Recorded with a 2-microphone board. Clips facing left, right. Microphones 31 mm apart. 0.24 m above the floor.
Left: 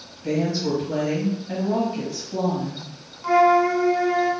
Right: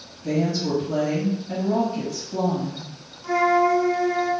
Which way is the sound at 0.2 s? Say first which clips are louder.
Even; 15° left (ahead or behind).